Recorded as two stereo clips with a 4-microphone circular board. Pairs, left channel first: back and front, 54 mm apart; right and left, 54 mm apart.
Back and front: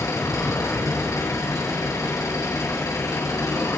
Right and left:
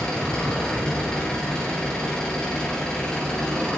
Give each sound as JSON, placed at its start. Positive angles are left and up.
{"t": 0.0, "sound": "an engine running", "azimuth_deg": -165, "distance_m": 7.0}